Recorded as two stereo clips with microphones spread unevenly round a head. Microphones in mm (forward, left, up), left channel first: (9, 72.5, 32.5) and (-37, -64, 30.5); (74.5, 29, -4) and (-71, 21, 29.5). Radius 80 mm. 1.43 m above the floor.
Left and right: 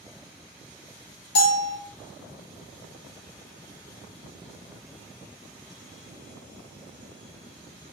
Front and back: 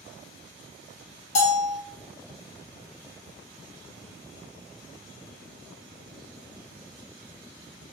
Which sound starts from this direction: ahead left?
A bell, at 1.4 s.